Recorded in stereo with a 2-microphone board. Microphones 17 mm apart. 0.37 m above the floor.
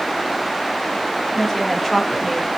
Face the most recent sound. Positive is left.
turn(degrees=10)  # may be behind; listen again after turning